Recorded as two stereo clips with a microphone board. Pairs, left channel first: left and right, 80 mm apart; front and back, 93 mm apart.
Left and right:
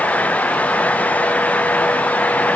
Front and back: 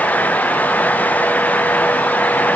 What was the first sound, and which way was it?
Only background noise.